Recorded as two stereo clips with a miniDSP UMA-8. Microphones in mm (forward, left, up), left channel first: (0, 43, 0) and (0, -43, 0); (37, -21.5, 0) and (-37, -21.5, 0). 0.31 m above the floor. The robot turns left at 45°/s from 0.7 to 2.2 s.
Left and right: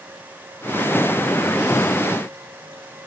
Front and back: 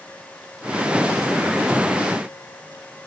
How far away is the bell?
No bell in this recording.